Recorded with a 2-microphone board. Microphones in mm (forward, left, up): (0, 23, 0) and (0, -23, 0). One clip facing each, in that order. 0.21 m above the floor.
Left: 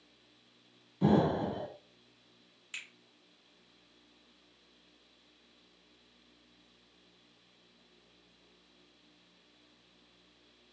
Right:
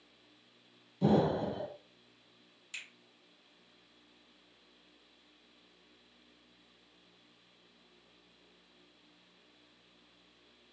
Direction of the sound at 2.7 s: 30° left (ahead or behind).